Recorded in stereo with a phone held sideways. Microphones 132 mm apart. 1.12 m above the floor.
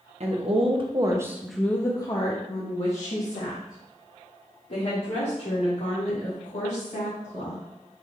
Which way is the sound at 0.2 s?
55° right (ahead or behind).